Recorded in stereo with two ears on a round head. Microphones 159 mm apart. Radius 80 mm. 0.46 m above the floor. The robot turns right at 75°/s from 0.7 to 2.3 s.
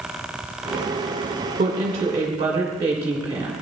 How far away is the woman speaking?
About 1.8 m.